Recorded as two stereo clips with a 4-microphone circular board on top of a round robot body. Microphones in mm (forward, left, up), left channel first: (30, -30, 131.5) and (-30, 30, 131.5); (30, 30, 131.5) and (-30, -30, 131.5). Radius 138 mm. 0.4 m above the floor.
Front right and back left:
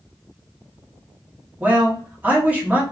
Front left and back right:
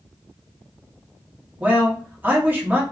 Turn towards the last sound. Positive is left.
turn(degrees=-175)